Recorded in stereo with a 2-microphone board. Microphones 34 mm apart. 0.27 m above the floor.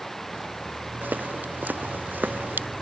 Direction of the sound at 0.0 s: 10° left (ahead or behind).